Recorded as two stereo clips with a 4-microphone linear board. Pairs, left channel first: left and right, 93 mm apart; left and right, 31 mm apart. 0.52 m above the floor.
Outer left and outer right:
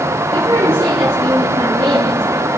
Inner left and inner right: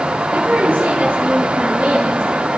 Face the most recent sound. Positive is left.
turn(degrees=-65)  # may be behind; listen again after turning